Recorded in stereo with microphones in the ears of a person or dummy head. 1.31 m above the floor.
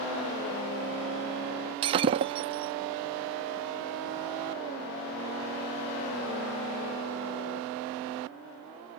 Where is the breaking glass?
25° right (ahead or behind).